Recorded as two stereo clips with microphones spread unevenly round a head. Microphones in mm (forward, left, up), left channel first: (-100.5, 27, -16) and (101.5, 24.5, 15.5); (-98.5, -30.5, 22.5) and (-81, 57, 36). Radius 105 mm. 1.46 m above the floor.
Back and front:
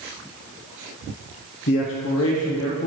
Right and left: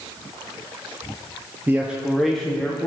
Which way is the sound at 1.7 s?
150° left.